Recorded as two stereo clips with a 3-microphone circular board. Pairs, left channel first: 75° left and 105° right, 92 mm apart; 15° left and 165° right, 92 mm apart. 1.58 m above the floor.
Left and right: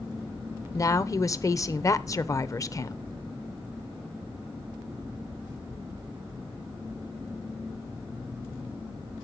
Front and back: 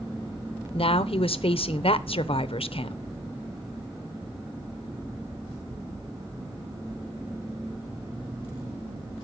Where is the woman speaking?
20° left, 0.7 m.